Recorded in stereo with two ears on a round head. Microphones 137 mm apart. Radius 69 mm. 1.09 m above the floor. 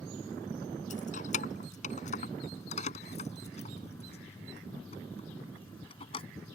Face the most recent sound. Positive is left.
turn(degrees=35)  # may be behind; listen again after turning